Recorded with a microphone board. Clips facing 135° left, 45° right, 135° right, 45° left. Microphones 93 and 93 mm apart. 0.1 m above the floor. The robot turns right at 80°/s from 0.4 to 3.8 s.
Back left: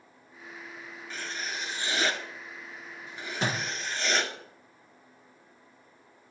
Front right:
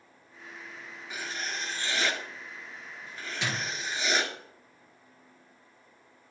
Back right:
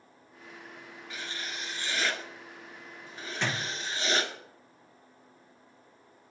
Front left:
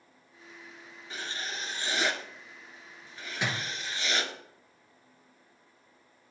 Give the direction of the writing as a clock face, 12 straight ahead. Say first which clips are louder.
Front right 1 dB, front left 2 dB; 11 o'clock.